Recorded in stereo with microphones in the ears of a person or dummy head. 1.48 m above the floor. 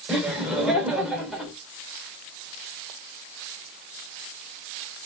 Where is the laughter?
Centre (ahead or behind), 1.3 m.